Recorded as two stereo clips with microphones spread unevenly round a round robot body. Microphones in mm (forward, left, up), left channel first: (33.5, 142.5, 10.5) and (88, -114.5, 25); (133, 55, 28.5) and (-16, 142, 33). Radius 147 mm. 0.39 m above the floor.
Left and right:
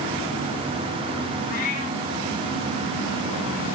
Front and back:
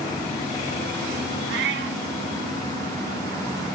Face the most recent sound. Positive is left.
turn(degrees=165)